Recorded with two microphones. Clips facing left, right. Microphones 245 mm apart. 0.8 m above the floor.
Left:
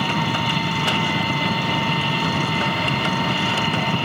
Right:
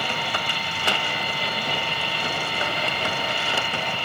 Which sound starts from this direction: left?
An engine running, at 0.0 s.